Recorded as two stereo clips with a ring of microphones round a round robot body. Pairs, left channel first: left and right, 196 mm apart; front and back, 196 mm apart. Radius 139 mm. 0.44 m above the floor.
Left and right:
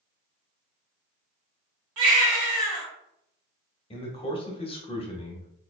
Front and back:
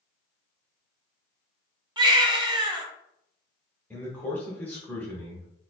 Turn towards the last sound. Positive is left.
turn(degrees=75)